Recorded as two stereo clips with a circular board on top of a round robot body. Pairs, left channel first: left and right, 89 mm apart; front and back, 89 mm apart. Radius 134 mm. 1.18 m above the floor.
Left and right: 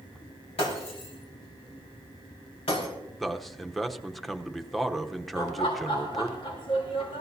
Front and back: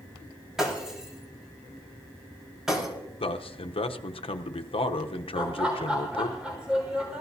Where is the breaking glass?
95° left, 5 m.